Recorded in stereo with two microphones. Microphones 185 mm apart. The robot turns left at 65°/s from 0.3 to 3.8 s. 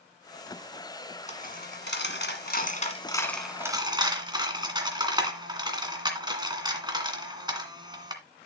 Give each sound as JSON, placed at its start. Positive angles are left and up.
{"t": 1.3, "sound": "a dropped coin", "side_deg": 40, "distance_m": 1.9}